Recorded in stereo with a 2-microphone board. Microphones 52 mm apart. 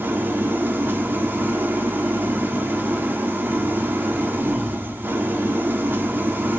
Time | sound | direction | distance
0.0 | an engine running | 40° right (ahead or behind) | 1.8 m